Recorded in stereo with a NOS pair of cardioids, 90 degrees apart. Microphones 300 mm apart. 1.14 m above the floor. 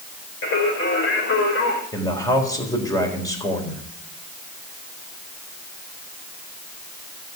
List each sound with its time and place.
0.4 s singing: 45° left, 5.5 m
1.9 s a man speaking: 10° left, 4 m